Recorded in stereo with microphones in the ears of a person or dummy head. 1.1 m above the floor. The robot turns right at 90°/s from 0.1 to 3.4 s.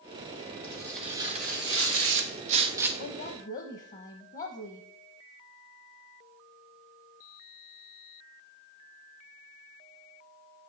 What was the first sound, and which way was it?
Tearing paper, 150° left.